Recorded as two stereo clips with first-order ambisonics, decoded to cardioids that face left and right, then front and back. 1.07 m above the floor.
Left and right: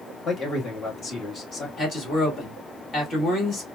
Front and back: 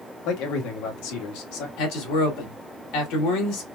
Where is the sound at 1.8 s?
20° left, 1.9 m.